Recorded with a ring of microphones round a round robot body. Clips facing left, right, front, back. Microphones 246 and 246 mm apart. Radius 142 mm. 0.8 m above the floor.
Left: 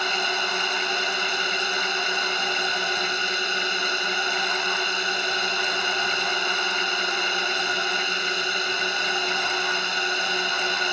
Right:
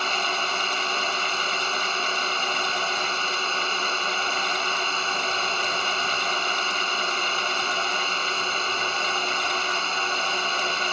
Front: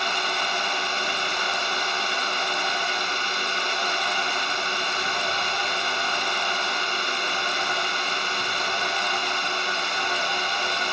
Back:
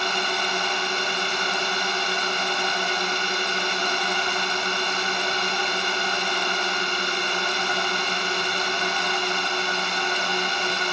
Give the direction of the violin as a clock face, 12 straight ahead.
I don't hear a violin.